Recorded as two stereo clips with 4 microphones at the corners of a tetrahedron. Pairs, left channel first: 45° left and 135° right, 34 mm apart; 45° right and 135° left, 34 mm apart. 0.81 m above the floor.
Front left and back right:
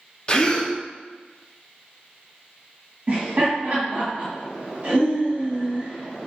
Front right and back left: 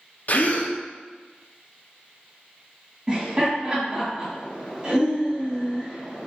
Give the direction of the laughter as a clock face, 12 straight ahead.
6 o'clock.